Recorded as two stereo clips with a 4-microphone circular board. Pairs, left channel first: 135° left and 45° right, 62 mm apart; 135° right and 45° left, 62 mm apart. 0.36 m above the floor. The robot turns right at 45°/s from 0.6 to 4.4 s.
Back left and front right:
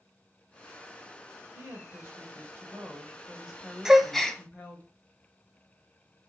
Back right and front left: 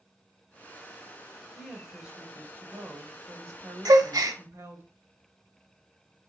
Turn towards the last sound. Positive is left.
turn(degrees=60)